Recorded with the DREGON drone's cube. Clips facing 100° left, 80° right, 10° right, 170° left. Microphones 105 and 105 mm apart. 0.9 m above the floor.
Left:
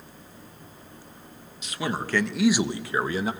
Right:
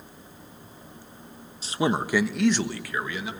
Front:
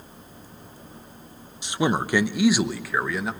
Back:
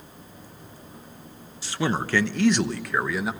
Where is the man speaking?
70° right, 0.9 m; by 3.3 s 85° left, 1.1 m.